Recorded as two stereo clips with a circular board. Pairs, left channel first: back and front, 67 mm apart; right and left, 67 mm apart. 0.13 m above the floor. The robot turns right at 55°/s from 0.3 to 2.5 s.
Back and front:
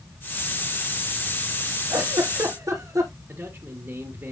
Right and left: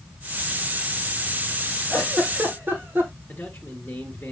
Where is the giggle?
Straight ahead, 3 m; by 3.1 s 30° left, 3 m.